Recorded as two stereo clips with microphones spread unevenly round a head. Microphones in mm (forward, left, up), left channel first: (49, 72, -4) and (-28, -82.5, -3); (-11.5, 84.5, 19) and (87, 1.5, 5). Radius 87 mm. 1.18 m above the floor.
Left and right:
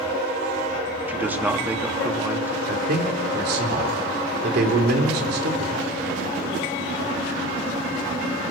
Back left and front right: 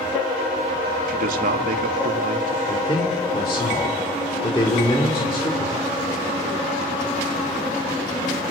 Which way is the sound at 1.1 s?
35° right.